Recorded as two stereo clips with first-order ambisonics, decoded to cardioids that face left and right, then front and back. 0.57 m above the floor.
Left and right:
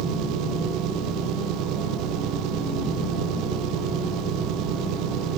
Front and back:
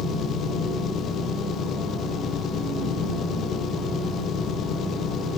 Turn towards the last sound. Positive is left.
turn(degrees=-55)